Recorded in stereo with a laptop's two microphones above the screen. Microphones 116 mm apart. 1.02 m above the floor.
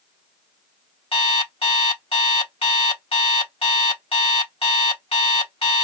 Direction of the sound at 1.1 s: 55° left (ahead or behind).